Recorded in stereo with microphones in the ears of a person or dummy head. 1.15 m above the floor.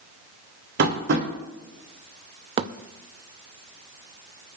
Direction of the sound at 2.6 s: 25° right (ahead or behind).